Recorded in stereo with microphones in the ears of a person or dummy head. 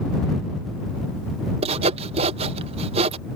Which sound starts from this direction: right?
Sawing, at 1.6 s.